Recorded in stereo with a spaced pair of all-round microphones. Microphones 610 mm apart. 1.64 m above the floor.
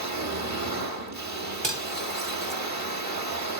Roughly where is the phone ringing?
I don't hear a phone ringing.